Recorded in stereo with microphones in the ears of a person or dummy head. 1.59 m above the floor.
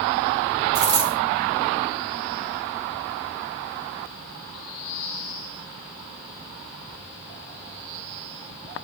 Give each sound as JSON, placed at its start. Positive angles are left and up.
{"t": 0.8, "sound": "a dropped coin", "side_deg": -20, "distance_m": 1.6}